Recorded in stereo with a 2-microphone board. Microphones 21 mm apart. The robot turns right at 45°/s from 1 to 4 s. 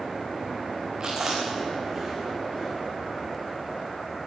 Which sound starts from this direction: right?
Chewing, at 1.0 s.